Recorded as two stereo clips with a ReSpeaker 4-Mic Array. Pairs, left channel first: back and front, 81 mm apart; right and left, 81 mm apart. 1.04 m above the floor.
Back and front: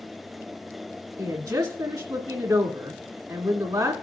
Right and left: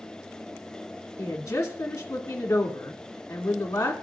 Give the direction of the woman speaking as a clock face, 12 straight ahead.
1 o'clock.